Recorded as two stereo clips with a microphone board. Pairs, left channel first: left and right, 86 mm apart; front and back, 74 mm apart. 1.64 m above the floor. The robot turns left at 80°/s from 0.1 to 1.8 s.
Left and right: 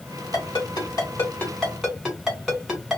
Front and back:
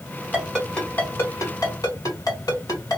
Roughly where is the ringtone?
Left.